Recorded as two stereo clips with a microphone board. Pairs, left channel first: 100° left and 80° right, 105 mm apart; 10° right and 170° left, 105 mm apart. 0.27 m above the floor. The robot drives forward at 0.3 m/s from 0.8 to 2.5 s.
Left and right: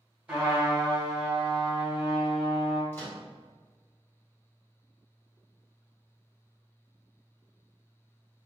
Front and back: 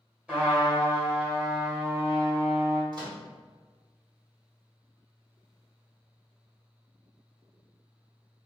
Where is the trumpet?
130° right, 1.2 m; by 2.8 s 155° right, 1.4 m.